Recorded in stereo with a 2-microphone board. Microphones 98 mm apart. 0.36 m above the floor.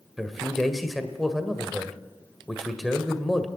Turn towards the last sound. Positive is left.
turn(degrees=0)  # may be behind; listen again after turning